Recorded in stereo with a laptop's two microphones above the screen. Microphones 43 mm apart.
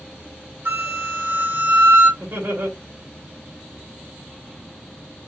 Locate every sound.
0.7 s a flute: 75° right (ahead or behind), 3 m
2.2 s laughter: 70° right (ahead or behind), 2 m